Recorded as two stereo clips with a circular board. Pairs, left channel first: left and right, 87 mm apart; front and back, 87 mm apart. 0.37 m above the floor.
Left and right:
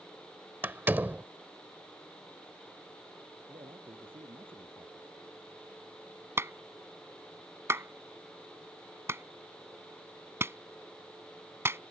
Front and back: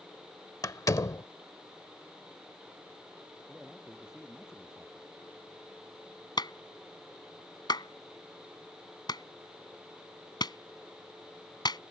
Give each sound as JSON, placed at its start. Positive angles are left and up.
{"t": 0.6, "sound": "a door slam", "azimuth_deg": -30}
{"t": 3.5, "sound": "a man speaking", "azimuth_deg": -95}
{"t": 6.4, "sound": "a clap", "azimuth_deg": -30}